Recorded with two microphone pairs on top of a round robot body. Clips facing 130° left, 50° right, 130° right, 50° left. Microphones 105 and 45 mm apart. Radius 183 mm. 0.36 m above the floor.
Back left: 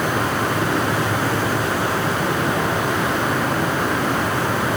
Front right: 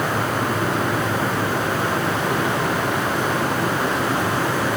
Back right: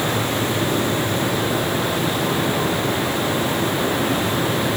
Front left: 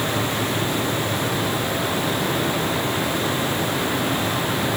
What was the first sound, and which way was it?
Only background noise.